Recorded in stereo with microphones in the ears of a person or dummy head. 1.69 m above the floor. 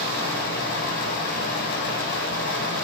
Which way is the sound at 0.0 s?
55° left (ahead or behind).